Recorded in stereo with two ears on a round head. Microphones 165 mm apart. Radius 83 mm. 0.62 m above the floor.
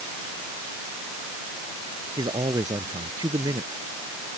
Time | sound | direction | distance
2.2 | a man speaking | 20° right (ahead or behind) | ?